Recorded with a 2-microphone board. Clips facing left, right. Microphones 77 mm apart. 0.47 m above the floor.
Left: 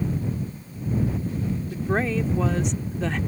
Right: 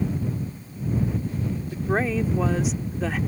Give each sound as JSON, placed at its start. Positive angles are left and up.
{"t": 1.7, "sound": "a woman speaking", "side_deg": -5}